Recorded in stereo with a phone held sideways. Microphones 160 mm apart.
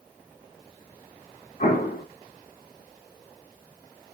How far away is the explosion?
About 3.5 m.